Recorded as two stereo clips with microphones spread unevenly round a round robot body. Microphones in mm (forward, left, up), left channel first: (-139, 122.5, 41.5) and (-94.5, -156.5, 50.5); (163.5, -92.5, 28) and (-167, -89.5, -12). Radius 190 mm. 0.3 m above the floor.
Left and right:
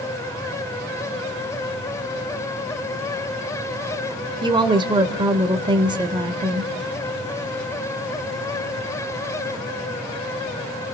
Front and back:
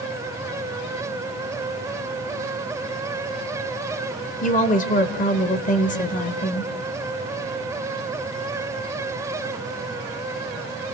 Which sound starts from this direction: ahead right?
A woman speaking, at 4.4 s.